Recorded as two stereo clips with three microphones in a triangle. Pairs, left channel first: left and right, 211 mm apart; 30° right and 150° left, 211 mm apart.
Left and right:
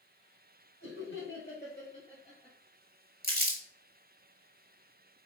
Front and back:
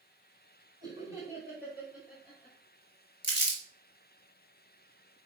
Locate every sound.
0.8 s laughter: 80° left, 2.5 m; by 2.6 s 25° left, 2.5 m
3.2 s crumpling: 55° right, 1.8 m